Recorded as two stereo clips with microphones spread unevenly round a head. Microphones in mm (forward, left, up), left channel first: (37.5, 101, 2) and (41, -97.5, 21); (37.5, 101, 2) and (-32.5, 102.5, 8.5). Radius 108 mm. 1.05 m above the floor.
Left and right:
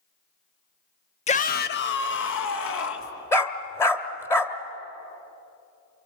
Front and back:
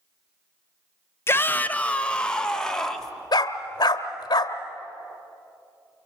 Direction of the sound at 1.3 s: 45° left.